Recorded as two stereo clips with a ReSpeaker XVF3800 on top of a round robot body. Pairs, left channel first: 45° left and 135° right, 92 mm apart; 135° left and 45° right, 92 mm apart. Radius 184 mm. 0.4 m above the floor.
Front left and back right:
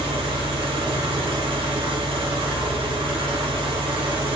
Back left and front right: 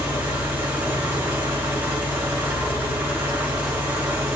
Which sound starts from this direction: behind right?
An engine running, at 0.0 s.